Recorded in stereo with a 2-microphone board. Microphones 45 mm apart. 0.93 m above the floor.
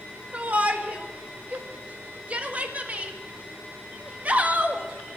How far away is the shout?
About 1.7 m.